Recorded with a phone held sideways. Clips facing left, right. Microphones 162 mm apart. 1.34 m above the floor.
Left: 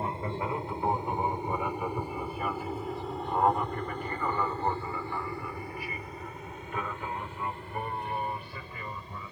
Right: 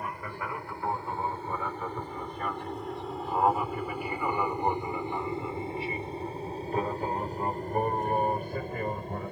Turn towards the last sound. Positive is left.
turn(degrees=-50)  # may be behind; listen again after turning